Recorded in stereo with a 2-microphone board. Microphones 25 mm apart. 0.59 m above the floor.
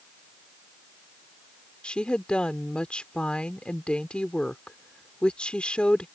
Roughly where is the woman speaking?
Left.